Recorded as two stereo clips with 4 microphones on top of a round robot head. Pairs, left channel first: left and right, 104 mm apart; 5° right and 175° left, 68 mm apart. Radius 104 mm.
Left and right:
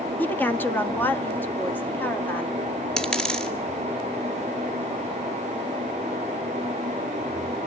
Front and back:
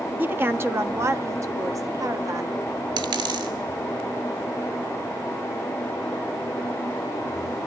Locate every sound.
0.2 s a woman speaking: 145° left, 1.3 m; by 2.5 s 160° left, 2 m
3.0 s a dropped coin: 170° left, 2.5 m